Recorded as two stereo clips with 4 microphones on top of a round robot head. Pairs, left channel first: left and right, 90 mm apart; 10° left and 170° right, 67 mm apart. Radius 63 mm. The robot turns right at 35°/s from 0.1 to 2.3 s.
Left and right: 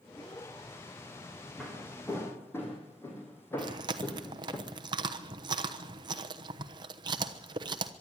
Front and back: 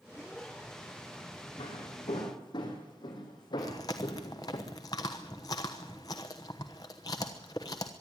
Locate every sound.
1.6 s footsteps: straight ahead, 4.5 m; by 4.6 s 25° left, 3.5 m
3.6 s chewing: 50° right, 1.0 m